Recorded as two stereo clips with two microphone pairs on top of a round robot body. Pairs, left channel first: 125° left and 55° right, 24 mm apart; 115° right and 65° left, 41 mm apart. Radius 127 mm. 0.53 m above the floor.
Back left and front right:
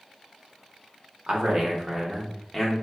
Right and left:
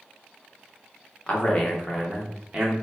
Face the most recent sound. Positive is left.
turn(degrees=105)